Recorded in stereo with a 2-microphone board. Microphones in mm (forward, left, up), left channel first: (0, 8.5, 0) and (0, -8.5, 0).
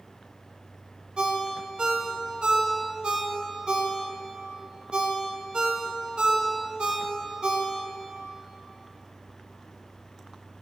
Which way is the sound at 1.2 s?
70° right (ahead or behind).